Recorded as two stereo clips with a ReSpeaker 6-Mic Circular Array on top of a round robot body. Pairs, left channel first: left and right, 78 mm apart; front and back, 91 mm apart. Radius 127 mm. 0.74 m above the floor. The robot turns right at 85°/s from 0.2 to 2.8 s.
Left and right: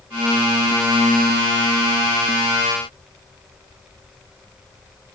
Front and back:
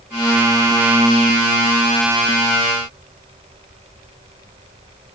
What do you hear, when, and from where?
Only background noise.